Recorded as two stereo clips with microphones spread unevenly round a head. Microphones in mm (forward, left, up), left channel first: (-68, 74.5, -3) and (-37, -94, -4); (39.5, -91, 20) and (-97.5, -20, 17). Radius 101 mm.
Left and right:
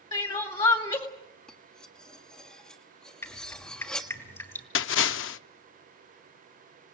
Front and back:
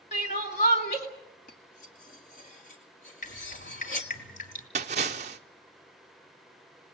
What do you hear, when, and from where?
0.1 s crying: 30° left, 2 m
1.5 s cutlery clinking: 15° left, 1.4 m
3.2 s dripping: 25° left, 3 m
4.8 s a splash: 90° left, 0.6 m